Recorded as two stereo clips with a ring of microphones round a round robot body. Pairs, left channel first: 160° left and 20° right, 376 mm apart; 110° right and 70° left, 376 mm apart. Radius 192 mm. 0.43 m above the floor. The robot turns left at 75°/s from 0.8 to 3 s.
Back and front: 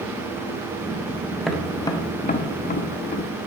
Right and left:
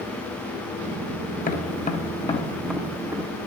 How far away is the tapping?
About 0.8 m.